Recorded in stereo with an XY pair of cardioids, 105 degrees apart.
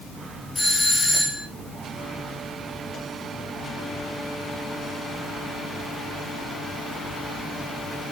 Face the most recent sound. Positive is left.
turn(degrees=15)